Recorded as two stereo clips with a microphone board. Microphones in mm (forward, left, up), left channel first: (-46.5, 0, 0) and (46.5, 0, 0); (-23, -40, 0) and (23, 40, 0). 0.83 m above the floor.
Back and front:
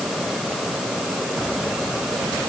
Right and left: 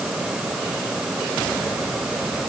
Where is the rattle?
I don't hear a rattle.